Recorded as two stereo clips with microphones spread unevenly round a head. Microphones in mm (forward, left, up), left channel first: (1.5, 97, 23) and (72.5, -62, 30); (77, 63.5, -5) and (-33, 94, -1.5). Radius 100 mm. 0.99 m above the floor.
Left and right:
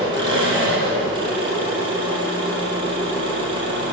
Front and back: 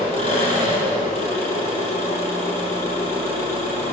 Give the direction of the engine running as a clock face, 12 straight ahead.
12 o'clock.